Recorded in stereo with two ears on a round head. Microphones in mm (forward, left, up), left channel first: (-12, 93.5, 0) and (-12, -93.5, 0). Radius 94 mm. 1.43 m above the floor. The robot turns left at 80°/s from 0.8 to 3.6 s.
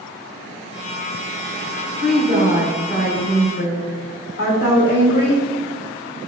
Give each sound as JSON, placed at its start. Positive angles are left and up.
{"t": 2.0, "sound": "a woman speaking", "azimuth_deg": -120, "distance_m": 2.0}